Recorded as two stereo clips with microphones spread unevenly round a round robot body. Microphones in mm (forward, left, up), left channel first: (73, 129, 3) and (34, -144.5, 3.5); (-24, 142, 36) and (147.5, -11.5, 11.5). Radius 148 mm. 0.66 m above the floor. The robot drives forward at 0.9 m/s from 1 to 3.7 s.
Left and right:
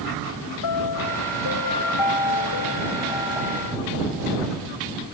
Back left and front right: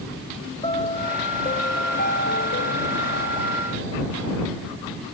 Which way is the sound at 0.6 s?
75° left.